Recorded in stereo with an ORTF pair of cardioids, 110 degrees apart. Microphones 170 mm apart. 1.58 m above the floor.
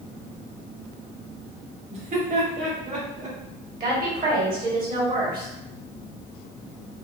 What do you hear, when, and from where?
1.9 s laughter: 40° right, 0.8 m; by 3.4 s 60° right, 1.5 m
3.8 s a woman speaking: 60° right, 1.4 m